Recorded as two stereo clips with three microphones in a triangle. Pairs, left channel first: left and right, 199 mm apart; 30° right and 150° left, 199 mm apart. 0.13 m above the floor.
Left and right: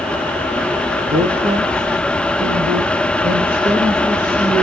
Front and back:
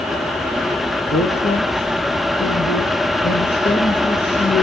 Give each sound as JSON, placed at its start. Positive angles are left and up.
{"t": 1.1, "sound": "a man speaking", "azimuth_deg": -50, "distance_m": 3.5}